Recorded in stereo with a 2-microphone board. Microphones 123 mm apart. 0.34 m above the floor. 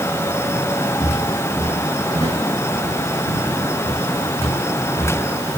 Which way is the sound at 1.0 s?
45° right (ahead or behind).